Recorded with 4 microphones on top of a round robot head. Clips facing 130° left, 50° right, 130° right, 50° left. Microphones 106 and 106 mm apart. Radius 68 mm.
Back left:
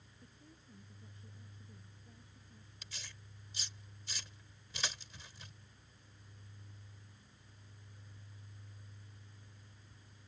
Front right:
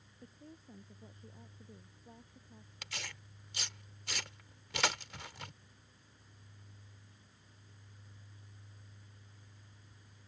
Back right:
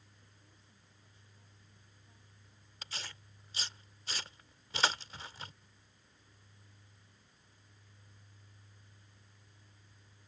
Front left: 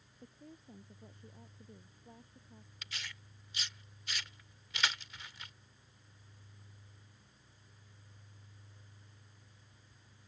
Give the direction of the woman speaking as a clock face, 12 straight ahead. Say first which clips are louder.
Front right 7 dB, front left 12 dB; 12 o'clock.